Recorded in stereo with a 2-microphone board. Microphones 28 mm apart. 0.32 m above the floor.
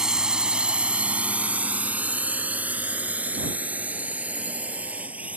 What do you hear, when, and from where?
0.0 s a drone: 25° right (ahead or behind); by 5.4 s 65° right (ahead or behind)